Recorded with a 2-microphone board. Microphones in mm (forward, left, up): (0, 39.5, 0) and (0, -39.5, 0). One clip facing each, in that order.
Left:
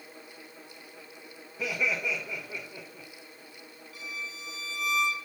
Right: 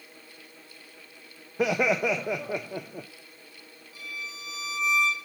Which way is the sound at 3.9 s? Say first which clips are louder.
Right 1 dB; 30° right (ahead or behind).